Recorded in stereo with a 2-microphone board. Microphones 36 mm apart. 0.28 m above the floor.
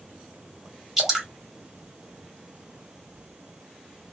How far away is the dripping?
About 1.6 m.